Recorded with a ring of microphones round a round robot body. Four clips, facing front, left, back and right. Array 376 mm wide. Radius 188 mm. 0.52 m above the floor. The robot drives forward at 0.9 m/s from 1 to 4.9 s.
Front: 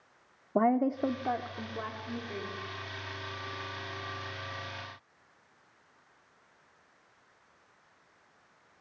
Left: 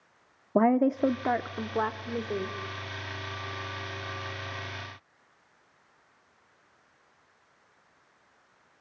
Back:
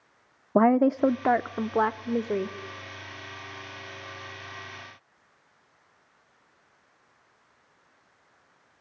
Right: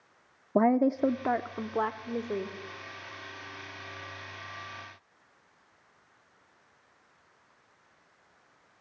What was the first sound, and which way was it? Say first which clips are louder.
A woman speaking: left 1 dB, back 7 dB; 170° left.